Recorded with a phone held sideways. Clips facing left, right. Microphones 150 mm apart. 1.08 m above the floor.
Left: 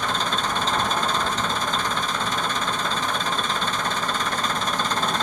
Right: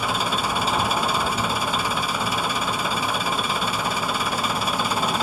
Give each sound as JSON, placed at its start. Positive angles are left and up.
{"t": 0.0, "sound": "an engine running", "side_deg": -10, "distance_m": 0.7}